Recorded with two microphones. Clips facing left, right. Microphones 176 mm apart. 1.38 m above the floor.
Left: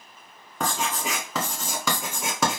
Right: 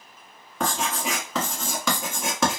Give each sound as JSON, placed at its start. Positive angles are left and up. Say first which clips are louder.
{"t": 0.6, "sound": "writing", "louder": "right 1 dB", "side_deg": 5, "distance_m": 1.5}